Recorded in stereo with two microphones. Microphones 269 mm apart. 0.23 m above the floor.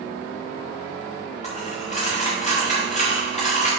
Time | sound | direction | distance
1.4 | a dropped coin | 25° left (ahead or behind) | 3.5 m